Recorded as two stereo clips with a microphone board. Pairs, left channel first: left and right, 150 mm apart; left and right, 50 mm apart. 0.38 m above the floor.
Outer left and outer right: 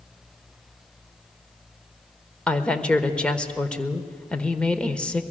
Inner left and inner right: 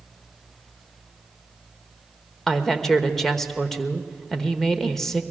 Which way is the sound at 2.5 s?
5° left (ahead or behind).